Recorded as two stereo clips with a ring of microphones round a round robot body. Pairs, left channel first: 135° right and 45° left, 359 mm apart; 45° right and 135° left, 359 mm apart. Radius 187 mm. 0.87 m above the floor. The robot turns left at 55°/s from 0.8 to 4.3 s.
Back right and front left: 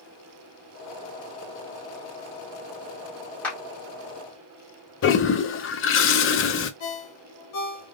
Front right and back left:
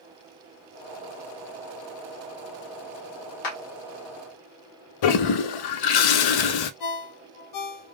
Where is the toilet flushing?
75° right, 0.5 m.